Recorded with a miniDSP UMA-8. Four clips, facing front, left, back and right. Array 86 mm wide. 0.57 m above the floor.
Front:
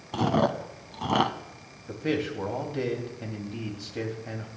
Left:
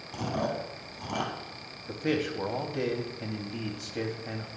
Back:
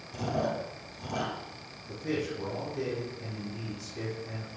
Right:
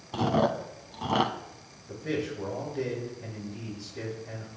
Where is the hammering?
I don't hear hammering.